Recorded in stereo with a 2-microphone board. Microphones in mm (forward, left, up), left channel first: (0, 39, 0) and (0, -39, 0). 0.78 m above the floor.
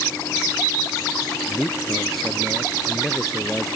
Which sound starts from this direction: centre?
A man speaking, at 1.5 s.